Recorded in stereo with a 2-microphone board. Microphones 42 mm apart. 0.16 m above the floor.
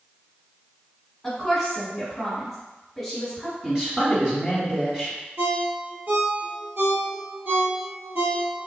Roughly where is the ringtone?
Right.